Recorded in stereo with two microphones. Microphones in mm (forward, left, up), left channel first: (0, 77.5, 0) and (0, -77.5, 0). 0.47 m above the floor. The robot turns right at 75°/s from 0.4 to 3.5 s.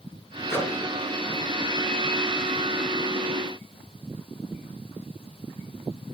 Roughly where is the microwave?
Centre.